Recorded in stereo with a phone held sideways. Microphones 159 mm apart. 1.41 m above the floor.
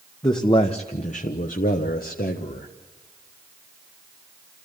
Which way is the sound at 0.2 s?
30° left (ahead or behind).